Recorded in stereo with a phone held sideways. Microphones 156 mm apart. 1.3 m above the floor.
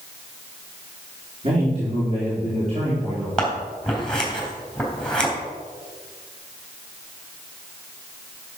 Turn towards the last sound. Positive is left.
turn(degrees=5)  # may be behind; listen again after turning